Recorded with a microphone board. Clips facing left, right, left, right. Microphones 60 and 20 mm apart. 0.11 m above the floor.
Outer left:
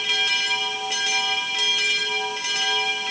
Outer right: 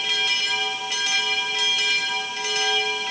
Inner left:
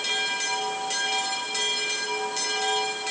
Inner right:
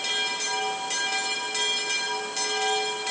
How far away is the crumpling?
No crumpling in this recording.